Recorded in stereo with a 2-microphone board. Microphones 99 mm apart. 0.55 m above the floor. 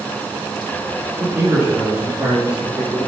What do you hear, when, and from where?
1.2 s a man speaking: 25° right (ahead or behind), 5 m; by 3.1 s 5° right (ahead or behind), 3.5 m